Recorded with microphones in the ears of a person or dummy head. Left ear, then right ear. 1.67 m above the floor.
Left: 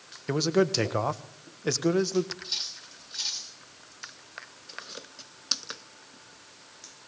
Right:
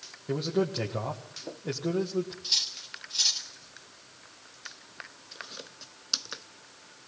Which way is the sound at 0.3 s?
70° left (ahead or behind).